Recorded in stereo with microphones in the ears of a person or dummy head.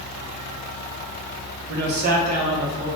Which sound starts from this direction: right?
A man speaking, at 1.7 s.